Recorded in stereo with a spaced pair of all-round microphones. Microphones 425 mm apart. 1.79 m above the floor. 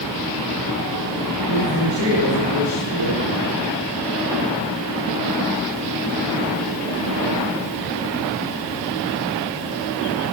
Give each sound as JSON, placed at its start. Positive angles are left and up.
{"t": 1.5, "sound": "a woman speaking", "side_deg": 80, "distance_m": 7.5}